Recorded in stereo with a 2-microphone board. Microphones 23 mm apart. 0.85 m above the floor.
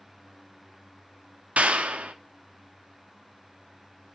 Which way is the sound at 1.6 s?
75° right (ahead or behind).